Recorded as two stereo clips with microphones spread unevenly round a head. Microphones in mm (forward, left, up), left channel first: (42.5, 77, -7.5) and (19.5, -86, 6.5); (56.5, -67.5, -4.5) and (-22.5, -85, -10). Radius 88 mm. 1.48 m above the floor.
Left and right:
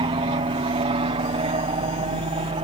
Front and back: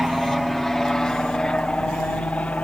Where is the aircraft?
80° right; by 2.6 s 55° right.